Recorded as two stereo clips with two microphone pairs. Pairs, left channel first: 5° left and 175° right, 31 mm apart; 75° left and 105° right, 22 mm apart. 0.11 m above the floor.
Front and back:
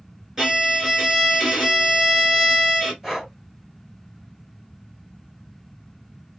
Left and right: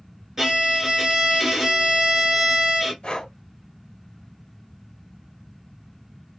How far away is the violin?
About 1.6 m.